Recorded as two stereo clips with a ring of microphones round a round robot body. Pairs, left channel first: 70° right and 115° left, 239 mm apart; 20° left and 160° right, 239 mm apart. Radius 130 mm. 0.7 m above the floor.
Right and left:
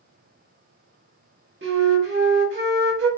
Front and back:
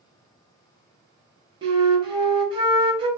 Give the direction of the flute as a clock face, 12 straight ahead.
7 o'clock.